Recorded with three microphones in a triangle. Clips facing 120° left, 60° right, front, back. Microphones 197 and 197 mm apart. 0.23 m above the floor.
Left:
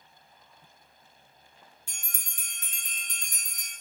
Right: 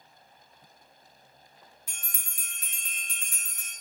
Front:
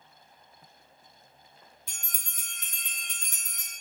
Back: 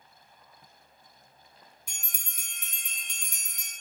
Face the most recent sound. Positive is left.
turn(degrees=115)